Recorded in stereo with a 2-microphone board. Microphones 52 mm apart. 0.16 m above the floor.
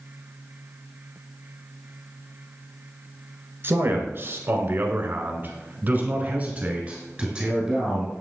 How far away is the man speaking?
About 2 m.